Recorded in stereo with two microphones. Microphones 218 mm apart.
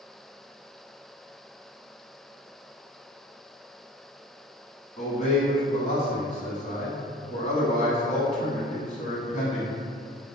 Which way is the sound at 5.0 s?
35° left (ahead or behind).